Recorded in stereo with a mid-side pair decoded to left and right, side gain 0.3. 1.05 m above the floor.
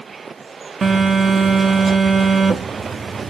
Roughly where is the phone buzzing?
Ahead right.